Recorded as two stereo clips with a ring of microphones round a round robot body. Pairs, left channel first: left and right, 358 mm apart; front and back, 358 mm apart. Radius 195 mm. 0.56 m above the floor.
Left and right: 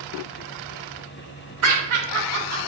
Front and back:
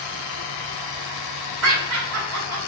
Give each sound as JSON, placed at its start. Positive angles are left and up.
{"t": 1.6, "sound": "laughter", "azimuth_deg": -135, "distance_m": 2.5}